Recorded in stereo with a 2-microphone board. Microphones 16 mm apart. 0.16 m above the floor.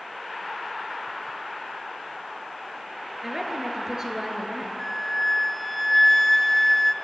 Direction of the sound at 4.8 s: 15° left (ahead or behind).